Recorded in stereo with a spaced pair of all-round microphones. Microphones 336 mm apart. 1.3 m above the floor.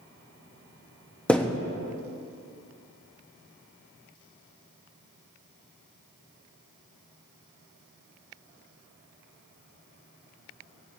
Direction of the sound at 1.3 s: 5° left (ahead or behind).